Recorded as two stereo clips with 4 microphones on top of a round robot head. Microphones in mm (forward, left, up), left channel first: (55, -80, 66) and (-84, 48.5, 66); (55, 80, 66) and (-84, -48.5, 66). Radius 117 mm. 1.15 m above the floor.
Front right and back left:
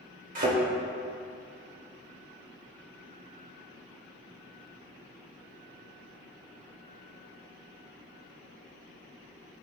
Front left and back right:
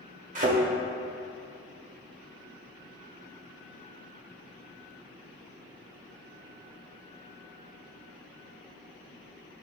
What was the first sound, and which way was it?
A thud, straight behind.